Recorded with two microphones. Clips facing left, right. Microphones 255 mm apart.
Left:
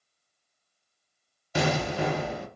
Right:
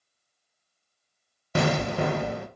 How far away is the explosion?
About 0.6 m.